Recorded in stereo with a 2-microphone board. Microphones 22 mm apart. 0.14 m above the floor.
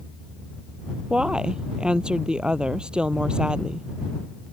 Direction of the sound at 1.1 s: 40° right (ahead or behind).